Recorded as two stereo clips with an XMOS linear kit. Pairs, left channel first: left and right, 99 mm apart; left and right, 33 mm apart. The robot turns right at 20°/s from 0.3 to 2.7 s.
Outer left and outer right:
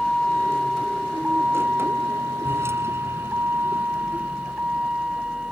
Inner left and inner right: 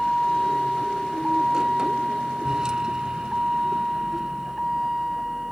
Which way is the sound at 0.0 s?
5° left (ahead or behind).